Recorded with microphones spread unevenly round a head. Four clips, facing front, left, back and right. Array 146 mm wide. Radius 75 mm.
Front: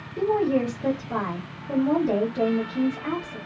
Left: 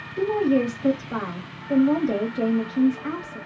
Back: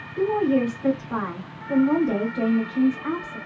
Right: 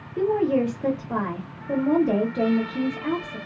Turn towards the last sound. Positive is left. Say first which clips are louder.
# even, back 1 dB
turn(degrees=-75)